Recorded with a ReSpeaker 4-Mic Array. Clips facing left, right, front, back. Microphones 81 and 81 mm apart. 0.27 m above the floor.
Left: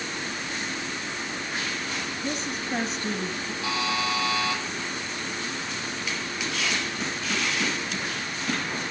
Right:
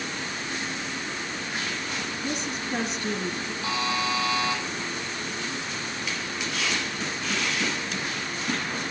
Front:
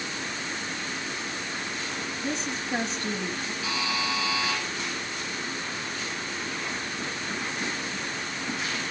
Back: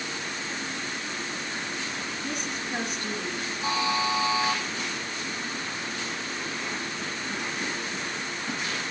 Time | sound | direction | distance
2.2 | a woman speaking | 50° left | 2 m
3.6 | a buzzer | 125° left | 8.5 m